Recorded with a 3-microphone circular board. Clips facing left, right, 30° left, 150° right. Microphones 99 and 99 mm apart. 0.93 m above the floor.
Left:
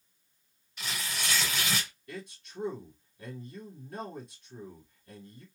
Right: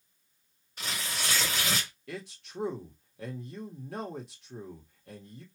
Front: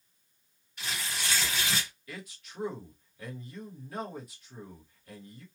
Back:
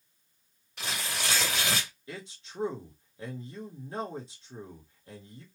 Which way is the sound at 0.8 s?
140° right.